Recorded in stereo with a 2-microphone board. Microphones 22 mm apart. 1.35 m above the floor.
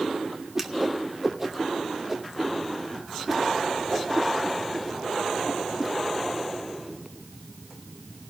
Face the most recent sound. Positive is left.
turn(degrees=-15)  # may be behind; listen again after turning